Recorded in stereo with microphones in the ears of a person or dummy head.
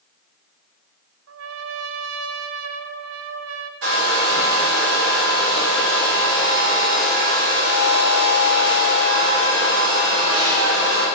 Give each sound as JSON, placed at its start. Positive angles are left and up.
{"t": 1.3, "sound": "a trumpet", "side_deg": -70, "distance_m": 0.5}
{"t": 3.8, "sound": "a hair dryer", "side_deg": -75, "distance_m": 2.0}